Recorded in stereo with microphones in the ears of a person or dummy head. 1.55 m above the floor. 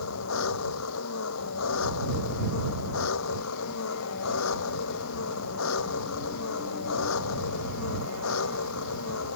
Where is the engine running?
75° left (ahead or behind).